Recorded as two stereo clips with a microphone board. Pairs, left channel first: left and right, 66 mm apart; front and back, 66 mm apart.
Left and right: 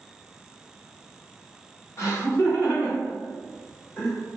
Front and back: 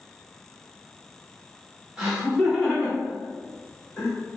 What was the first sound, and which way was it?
Laughter, 105° left.